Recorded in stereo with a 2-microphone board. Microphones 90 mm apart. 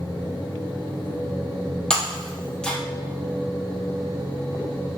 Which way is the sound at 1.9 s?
10° left (ahead or behind).